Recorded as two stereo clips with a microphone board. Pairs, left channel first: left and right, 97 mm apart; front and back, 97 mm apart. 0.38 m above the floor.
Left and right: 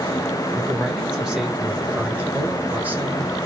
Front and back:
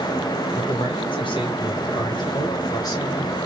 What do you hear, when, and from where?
0.6 s a man speaking: 5° right, 3 m; by 3.4 s 35° right, 1.9 m